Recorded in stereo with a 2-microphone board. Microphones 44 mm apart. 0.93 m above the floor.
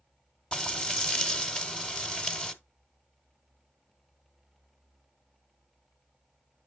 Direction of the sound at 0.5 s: 20° left (ahead or behind).